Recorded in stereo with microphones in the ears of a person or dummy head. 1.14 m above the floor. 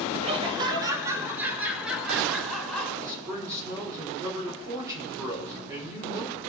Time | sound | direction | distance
0.2 | laughter | 30° right (ahead or behind) | 1.1 m
3.0 | a man speaking | 15° right (ahead or behind) | 3 m